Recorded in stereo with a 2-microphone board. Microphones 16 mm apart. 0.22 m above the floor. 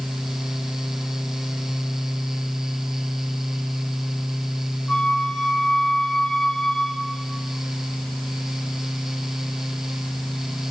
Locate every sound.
4.9 s a flute: 50° left (ahead or behind), 4 m